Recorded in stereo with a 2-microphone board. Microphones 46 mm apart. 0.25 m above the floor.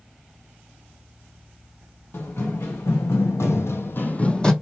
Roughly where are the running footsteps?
Left.